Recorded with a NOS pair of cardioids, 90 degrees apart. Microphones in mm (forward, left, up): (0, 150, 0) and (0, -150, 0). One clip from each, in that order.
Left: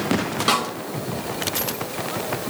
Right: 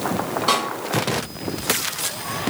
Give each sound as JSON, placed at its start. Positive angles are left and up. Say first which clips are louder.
{"t": 0.5, "sound": "a snare drum", "louder": "even", "azimuth_deg": 60, "distance_m": 1.8}